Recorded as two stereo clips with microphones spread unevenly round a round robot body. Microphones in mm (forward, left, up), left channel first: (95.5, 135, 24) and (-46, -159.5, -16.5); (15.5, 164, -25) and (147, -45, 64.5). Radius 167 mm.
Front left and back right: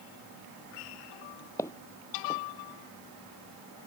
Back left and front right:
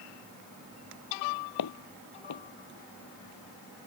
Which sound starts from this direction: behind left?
Footsteps, at 1.6 s.